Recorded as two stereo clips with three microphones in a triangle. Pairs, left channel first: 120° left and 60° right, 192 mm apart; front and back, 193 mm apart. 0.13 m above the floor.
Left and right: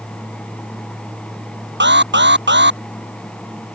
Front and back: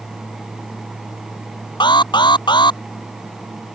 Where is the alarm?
65° right.